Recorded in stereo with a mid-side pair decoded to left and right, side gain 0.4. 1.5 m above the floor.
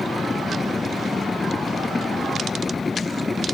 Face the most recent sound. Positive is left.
turn(degrees=30)